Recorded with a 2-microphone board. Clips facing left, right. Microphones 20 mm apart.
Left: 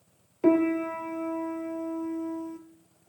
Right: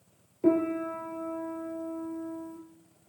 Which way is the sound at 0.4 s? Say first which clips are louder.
Left 3 dB; 35° left (ahead or behind).